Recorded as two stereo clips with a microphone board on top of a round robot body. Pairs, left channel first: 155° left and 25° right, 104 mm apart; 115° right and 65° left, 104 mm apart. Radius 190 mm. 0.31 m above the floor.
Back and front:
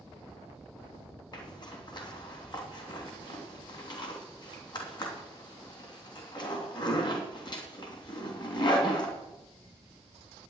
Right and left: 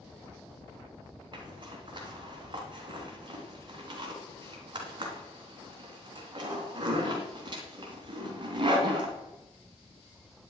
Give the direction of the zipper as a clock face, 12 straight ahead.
8 o'clock.